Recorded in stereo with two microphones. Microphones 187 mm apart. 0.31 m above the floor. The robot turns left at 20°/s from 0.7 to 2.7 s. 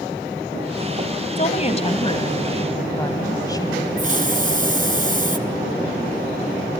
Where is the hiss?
45° right (ahead or behind), 1.0 m.